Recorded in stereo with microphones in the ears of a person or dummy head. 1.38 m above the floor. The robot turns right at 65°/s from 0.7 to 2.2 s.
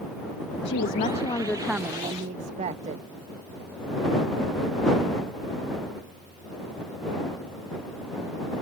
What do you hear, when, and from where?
0.7 s a woman speaking: 120° left; by 3.0 s 145° right